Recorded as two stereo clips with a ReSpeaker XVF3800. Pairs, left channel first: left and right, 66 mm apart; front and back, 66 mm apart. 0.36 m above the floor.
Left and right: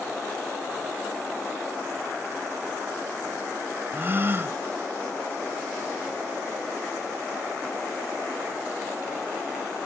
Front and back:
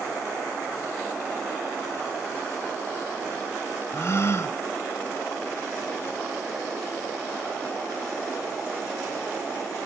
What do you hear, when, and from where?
3.9 s a gasp: 40° right, 0.7 m